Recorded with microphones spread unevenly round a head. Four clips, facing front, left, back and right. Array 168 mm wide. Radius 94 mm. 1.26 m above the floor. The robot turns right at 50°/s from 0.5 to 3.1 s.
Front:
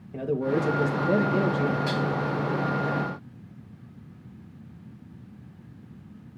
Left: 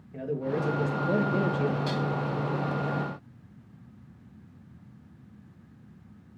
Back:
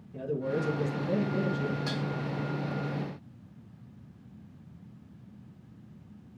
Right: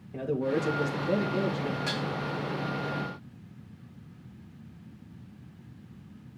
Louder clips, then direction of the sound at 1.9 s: Left 3 dB, front 7 dB; 175° right.